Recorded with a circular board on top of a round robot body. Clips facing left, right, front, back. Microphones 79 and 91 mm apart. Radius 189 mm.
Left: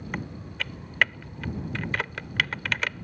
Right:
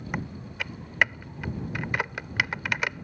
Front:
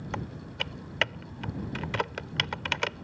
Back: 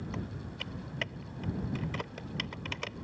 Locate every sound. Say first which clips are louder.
0.1 s typing on a keyboard: right 1 dB, front 4 dB; 20° right